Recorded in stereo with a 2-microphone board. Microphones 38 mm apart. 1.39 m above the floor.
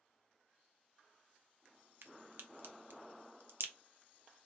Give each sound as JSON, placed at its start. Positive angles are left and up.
{"t": 2.0, "sound": "a crack", "side_deg": -75, "distance_m": 0.7}